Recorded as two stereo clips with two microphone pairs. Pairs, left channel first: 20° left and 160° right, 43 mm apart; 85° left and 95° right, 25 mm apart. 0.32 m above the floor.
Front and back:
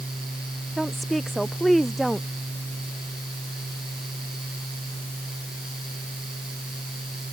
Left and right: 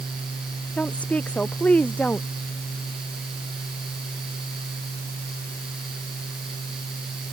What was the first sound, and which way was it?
A woman speaking, 110° left.